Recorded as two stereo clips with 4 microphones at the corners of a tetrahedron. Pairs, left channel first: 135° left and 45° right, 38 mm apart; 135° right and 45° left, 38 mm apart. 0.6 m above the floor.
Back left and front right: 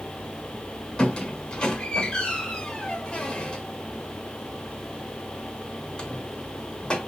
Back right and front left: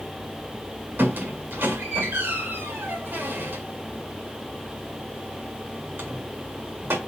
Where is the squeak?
65° left, 1.4 m.